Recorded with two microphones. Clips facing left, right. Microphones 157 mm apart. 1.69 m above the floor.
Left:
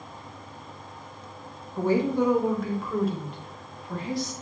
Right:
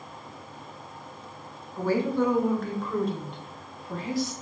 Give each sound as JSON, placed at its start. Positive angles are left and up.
{"t": 1.8, "sound": "a woman speaking", "side_deg": 25, "distance_m": 0.5}